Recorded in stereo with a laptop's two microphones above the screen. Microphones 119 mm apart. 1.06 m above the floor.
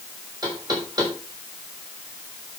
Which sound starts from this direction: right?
Knocking, at 0.4 s.